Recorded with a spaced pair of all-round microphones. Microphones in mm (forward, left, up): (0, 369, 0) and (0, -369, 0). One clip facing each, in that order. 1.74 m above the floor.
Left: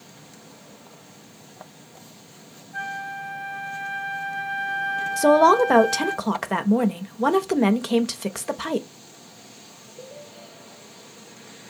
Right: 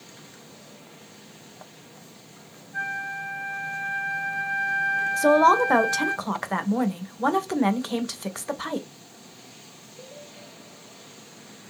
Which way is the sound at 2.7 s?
40° left (ahead or behind).